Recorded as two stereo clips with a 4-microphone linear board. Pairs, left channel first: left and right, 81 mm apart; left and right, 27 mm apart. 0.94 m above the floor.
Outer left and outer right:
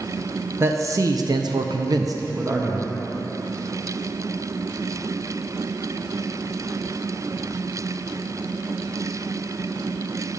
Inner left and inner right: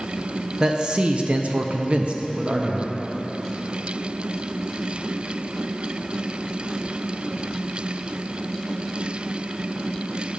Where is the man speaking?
35° right (ahead or behind), 1.0 m; by 2.9 s 20° right (ahead or behind), 1.0 m.